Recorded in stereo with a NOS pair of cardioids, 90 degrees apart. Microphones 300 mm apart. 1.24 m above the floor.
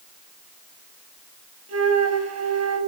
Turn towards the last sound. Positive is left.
turn(degrees=-55)